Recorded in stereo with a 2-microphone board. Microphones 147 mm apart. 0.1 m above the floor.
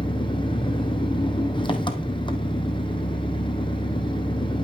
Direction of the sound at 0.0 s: 30° left (ahead or behind).